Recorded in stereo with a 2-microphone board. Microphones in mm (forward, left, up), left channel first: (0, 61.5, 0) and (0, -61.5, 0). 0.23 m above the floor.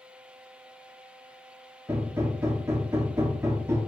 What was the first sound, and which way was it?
Hammering, 20° right (ahead or behind).